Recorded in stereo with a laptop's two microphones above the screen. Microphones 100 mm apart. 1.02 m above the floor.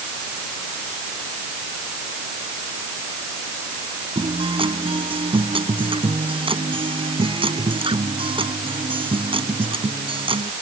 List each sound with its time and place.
4.2 s a guitar: 60° right (ahead or behind)